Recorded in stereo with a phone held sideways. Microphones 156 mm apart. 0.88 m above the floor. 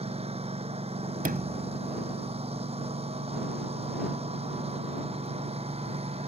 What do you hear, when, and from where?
0.0 s a lawn mower: 40° right (ahead or behind)
1.2 s a sliding door: 65° right (ahead or behind)